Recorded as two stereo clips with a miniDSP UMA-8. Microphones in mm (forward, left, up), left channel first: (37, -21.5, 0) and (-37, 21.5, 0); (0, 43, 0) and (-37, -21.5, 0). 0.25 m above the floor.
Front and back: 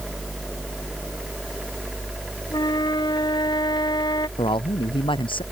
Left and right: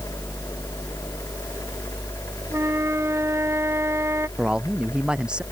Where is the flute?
65° right.